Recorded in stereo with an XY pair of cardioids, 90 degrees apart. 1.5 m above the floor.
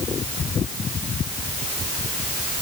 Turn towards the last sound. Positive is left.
No sound to turn to.